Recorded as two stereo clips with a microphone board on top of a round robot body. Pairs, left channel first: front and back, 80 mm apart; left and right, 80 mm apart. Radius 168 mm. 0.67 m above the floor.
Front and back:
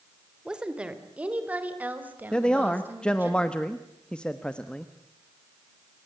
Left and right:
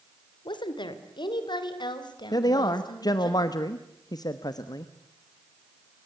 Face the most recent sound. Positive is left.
turn(degrees=75)